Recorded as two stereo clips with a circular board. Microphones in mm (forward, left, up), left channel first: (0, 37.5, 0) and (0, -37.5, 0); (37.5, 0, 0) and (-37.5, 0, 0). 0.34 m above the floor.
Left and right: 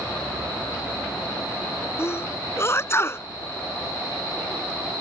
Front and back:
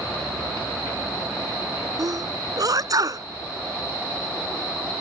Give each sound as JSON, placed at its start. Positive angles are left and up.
{"t": 2.0, "sound": "a sneeze", "azimuth_deg": 145}